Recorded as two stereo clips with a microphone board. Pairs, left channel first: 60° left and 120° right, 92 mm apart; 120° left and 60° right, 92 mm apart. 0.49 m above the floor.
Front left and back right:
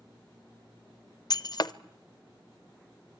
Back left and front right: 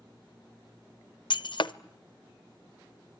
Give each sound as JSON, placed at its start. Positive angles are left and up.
{"t": 1.3, "sound": "breaking glass", "azimuth_deg": 100, "distance_m": 0.5}